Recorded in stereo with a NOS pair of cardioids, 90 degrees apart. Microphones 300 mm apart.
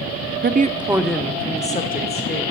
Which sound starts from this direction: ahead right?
A woman speaking, at 0.4 s.